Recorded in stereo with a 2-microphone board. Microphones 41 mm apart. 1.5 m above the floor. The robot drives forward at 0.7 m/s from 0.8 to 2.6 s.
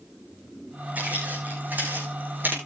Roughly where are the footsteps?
Right.